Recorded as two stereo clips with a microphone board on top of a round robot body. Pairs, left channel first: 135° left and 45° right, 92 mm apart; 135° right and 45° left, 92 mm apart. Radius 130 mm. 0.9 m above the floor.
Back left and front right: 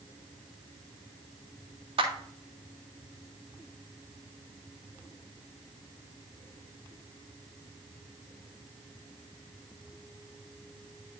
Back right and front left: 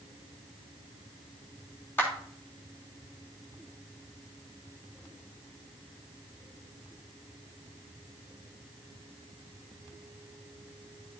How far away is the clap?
About 3 m.